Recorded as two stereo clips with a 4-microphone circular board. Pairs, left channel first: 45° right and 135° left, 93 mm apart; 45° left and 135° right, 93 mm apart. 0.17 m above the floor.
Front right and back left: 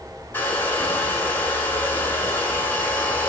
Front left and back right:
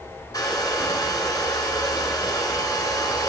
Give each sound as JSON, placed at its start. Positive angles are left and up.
{"t": 0.3, "sound": "a hair dryer", "azimuth_deg": 15, "distance_m": 1.0}